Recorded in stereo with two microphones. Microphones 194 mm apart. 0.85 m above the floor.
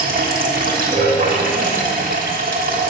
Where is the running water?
45° right (ahead or behind), 1.3 m.